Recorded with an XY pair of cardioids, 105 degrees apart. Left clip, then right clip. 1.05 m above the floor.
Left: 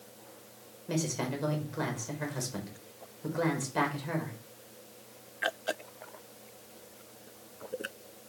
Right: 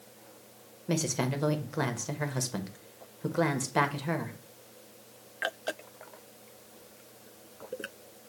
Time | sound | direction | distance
0.9 | a woman speaking | 45° right | 0.9 m